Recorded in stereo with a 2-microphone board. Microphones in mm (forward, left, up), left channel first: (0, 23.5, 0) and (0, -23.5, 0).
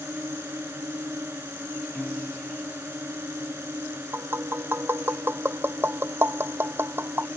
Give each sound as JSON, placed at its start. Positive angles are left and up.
{"t": 0.0, "sound": "a drone", "side_deg": -65}
{"t": 1.9, "sound": "a piano", "side_deg": 30}
{"t": 4.1, "sound": "tapping", "side_deg": -60}